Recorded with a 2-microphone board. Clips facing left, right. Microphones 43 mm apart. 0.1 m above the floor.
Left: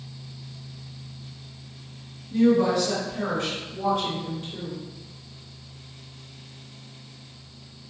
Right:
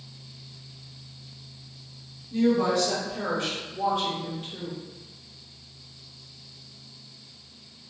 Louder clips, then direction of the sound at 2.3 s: Left 3 dB; 10° left (ahead or behind).